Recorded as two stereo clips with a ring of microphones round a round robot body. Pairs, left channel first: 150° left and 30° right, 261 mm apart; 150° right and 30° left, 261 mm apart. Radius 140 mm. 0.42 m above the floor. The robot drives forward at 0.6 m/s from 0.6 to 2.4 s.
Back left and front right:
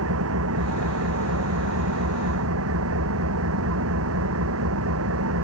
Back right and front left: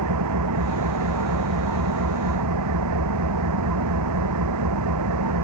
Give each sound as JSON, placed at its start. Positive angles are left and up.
{"t": 0.0, "sound": "an engine running", "azimuth_deg": 5}